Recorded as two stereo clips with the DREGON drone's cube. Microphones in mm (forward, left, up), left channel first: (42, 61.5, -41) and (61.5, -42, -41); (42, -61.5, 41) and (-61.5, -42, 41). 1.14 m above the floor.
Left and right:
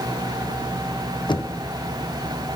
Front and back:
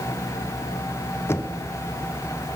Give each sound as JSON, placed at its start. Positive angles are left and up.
{"t": 1.3, "sound": "knocking", "azimuth_deg": 55, "distance_m": 0.7}